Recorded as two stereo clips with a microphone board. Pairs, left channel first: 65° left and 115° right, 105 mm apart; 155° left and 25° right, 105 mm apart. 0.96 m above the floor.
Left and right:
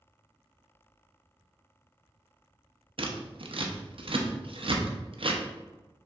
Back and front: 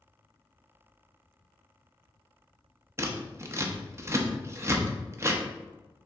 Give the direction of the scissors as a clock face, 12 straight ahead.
3 o'clock.